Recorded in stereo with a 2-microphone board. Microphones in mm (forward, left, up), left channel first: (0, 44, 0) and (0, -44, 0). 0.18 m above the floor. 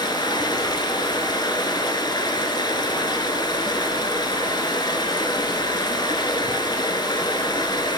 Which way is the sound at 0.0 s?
55° left (ahead or behind).